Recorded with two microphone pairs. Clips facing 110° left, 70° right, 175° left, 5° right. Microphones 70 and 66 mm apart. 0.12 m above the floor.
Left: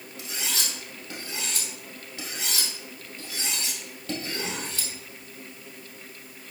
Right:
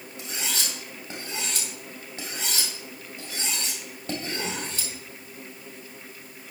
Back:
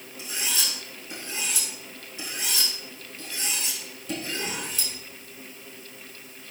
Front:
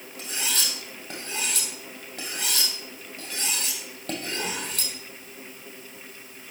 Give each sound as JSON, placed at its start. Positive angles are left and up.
{"t": 0.2, "sound": "cutlery clinking", "azimuth_deg": -5, "distance_m": 2.5}